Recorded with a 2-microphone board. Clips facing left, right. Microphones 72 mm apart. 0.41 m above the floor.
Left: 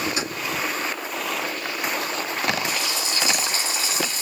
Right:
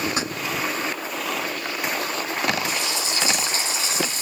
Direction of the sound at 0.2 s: 35° right (ahead or behind).